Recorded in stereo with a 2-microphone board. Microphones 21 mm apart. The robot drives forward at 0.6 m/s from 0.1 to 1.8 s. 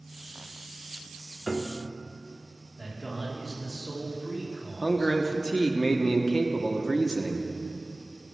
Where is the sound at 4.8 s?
35° left (ahead or behind), 0.9 m.